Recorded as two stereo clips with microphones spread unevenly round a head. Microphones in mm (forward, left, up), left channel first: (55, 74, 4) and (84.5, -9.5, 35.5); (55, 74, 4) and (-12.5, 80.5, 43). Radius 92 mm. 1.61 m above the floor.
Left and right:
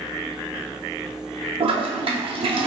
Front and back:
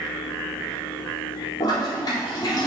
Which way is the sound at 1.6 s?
50° right.